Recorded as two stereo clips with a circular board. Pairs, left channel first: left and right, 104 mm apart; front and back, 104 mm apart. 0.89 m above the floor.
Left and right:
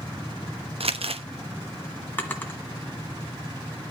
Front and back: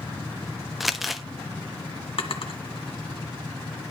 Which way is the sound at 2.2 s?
20° left.